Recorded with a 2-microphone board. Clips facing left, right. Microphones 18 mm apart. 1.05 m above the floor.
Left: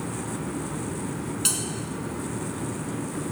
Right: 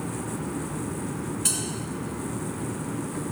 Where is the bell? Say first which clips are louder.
Left 1 dB; 80° left, 4 m.